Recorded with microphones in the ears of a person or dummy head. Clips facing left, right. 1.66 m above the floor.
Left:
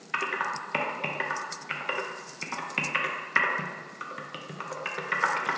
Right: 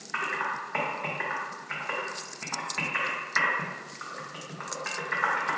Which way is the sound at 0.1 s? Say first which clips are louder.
Left 1 dB; 40° left (ahead or behind).